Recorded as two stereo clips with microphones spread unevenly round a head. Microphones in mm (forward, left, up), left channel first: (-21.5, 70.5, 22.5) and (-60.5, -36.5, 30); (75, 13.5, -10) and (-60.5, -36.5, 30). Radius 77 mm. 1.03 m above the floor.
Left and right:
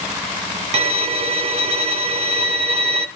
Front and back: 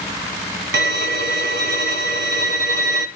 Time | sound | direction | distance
0.7 | a violin | 130° right | 1.6 m